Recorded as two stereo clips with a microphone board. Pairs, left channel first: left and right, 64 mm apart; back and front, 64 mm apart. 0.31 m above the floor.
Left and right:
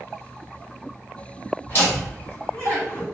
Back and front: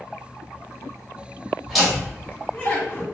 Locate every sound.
1.7 s laughter: 80° left, 1.6 m; by 3.0 s 135° left, 2.5 m